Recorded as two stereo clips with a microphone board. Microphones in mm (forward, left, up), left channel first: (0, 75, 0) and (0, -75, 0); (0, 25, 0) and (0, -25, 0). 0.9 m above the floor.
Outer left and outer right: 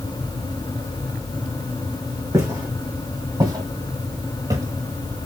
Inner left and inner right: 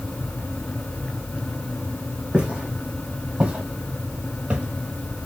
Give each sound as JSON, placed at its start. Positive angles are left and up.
{"t": 2.3, "sound": "footsteps", "side_deg": -20, "distance_m": 2.0}